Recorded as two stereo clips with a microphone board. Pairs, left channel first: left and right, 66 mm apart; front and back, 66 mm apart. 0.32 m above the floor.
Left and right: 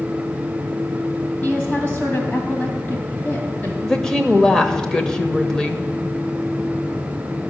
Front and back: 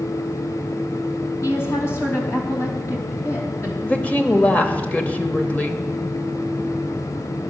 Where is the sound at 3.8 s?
25° left, 0.9 m.